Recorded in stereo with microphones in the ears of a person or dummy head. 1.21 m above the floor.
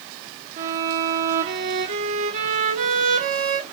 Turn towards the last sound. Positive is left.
turn(degrees=-40)  # may be behind; listen again after turning